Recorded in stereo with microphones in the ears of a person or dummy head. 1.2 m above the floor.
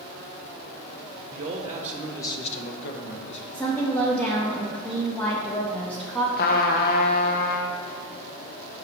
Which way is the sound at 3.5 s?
10° left (ahead or behind).